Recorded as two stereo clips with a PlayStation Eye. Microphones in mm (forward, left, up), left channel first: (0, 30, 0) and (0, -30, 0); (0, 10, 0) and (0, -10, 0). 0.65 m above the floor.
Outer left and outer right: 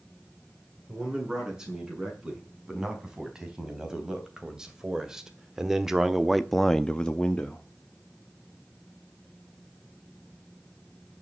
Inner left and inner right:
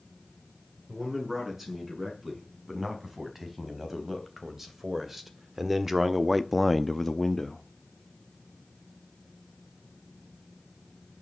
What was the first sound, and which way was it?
A man speaking, 15° right (ahead or behind).